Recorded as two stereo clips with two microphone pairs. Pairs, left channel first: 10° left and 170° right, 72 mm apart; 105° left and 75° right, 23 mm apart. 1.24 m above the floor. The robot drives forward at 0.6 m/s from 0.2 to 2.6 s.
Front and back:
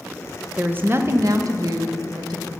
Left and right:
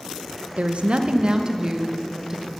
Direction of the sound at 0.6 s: 100° right.